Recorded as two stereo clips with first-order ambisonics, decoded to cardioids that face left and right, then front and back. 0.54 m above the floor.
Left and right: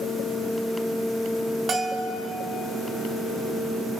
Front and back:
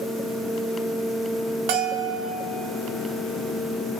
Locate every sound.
1.7 s a bell: 155° right, 0.9 m